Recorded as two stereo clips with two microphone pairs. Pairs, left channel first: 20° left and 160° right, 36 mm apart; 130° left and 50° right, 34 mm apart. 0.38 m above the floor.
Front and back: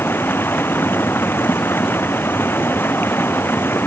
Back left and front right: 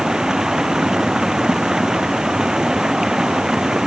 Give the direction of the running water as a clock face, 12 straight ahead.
11 o'clock.